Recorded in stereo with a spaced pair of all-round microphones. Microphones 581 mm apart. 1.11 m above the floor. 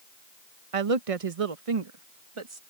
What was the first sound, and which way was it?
A woman speaking, 75° right (ahead or behind).